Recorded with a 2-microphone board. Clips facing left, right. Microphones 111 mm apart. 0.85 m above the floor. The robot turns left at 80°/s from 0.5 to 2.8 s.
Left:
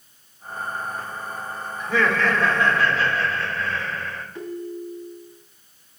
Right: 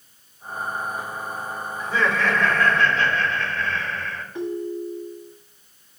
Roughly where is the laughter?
Left.